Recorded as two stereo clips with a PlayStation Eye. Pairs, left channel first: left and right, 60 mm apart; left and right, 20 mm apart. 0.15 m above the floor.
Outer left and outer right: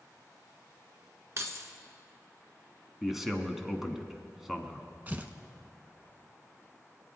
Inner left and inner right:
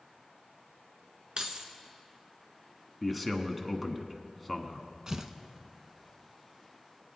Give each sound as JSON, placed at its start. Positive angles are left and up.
{"t": 1.4, "sound": "keys jangling", "side_deg": -50, "distance_m": 1.1}
{"t": 3.0, "sound": "a man speaking", "side_deg": -5, "distance_m": 1.0}
{"t": 5.1, "sound": "tearing paper", "side_deg": -30, "distance_m": 0.6}